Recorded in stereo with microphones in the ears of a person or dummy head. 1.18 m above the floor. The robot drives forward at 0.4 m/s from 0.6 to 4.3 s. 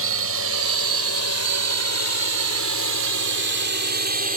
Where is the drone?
75° right (ahead or behind); by 4.4 s 40° right (ahead or behind).